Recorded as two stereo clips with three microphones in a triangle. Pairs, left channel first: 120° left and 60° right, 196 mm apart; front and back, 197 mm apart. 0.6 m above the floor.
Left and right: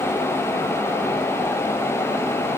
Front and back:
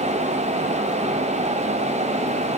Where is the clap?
I don't hear a clap.